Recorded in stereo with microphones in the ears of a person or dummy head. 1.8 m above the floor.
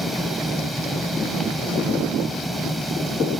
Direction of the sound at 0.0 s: Centre (ahead or behind).